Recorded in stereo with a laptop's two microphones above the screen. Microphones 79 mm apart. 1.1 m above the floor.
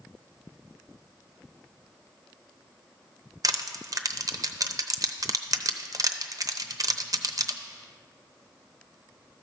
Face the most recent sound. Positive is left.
turn(degrees=-45)  # may be behind; listen again after turning